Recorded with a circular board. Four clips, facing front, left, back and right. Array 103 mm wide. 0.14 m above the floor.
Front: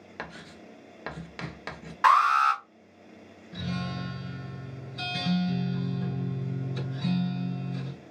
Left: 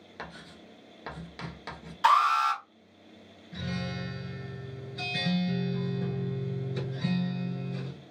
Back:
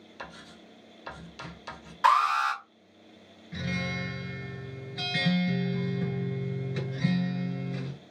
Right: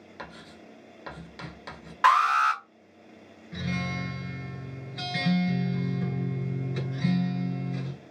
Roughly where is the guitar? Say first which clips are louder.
Right 3 dB, even; behind right.